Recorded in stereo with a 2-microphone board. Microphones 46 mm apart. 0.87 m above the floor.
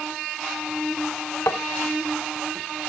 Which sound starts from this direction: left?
Tapping, at 1.5 s.